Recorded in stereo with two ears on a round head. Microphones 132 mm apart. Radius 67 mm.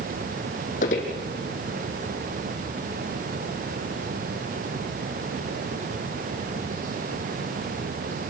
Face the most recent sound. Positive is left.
turn(degrees=55)  # may be behind; listen again after turning